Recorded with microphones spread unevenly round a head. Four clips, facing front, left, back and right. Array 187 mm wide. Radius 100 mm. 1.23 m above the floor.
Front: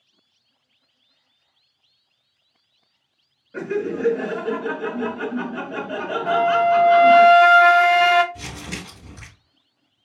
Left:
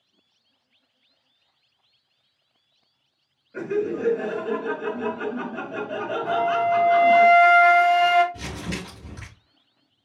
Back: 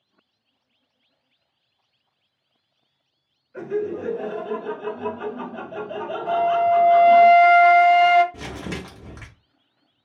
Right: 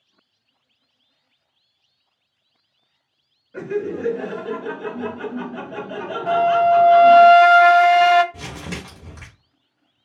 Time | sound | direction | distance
3.5 | laughter | 5° right | 2 m
6.3 | a flute | 45° right | 0.6 m
8.3 | crumpling | 165° right | 1.3 m